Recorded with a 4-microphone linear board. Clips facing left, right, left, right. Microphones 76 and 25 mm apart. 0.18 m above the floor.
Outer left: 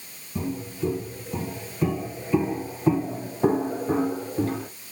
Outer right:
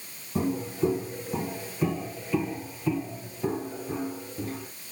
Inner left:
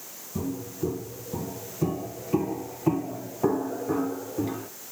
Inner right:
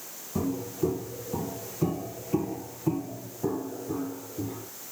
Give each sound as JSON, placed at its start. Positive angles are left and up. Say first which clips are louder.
{"t": 0.3, "sound": "footsteps", "louder": "outer right 3 dB, inner right 2 dB", "side_deg": -30, "distance_m": 3.0}